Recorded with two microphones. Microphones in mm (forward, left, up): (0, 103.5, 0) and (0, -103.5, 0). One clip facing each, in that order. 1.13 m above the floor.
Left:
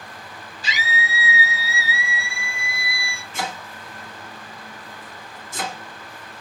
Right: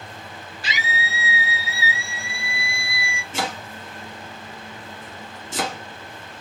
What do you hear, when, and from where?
0.6 s a scream: 65° right (ahead or behind), 1.7 m; by 3.2 s 15° right (ahead or behind), 0.7 m
3.3 s chopping: 85° right, 1.3 m